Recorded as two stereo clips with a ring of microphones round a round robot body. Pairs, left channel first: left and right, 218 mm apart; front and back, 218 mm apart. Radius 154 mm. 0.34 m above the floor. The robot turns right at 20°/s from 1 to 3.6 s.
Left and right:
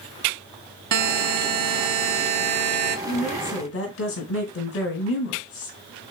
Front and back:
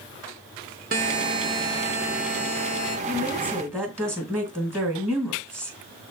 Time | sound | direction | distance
0.9 | a buzzer | 115° right | 0.7 m
3.1 | a woman speaking | 90° left | 3 m